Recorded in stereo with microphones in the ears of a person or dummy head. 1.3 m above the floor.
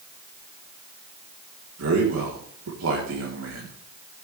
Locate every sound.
1.8 s a man speaking: 85° right, 4 m